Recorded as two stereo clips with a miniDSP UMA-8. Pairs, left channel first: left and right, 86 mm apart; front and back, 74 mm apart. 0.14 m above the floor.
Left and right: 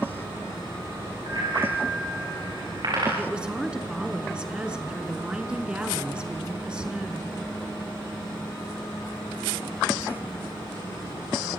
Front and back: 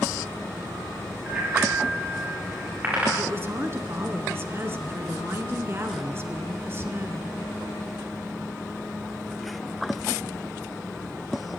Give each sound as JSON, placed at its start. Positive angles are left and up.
{"t": 1.3, "sound": "a bicycle bell", "azimuth_deg": -110, "distance_m": 8.5}
{"t": 3.2, "sound": "a woman speaking", "azimuth_deg": -160, "distance_m": 1.7}